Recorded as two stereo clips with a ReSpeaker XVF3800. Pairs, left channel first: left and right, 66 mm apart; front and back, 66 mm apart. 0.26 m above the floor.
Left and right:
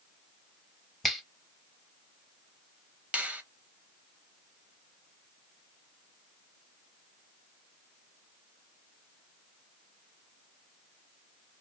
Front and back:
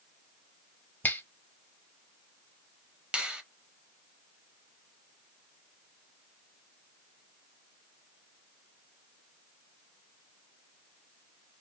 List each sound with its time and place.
1.0 s a finger snap: straight ahead, 0.8 m
3.1 s a finger snap: 125° right, 0.7 m